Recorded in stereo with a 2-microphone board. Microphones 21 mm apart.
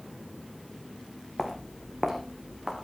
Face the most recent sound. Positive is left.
turn(degrees=-15)  # may be behind; listen again after turning